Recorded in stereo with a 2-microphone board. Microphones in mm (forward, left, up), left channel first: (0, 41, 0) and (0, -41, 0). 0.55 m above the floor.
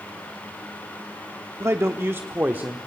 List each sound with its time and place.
1.6 s a man speaking: 35° right (ahead or behind), 0.9 m; by 2.8 s 20° right (ahead or behind), 1.3 m